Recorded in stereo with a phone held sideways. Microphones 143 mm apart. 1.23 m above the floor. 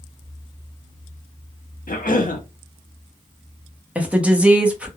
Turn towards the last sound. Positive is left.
turn(degrees=-10)  # may be behind; listen again after turning